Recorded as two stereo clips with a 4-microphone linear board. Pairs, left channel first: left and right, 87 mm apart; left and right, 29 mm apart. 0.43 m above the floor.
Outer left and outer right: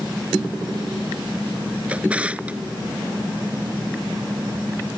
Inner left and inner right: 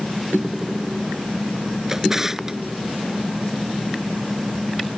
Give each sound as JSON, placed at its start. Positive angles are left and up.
{"t": 1.9, "sound": "a drawer", "side_deg": -15}